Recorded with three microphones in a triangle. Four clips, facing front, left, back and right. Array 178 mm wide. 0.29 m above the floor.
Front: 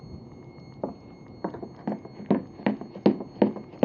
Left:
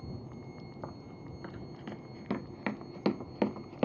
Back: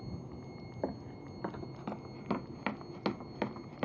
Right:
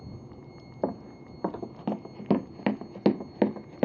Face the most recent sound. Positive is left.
turn(degrees=-20)